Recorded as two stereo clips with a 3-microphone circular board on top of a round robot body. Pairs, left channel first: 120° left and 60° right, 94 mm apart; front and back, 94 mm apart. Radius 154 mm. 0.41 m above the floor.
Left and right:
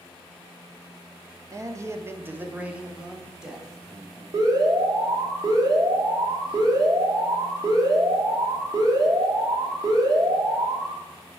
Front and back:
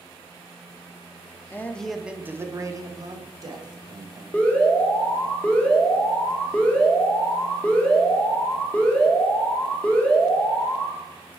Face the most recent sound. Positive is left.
turn(degrees=-70)